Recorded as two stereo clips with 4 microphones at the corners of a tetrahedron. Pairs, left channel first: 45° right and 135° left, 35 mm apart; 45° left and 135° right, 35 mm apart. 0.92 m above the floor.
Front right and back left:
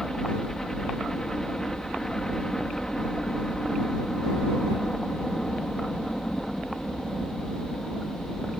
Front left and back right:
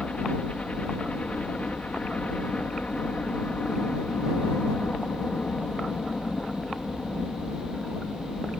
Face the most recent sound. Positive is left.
turn(degrees=25)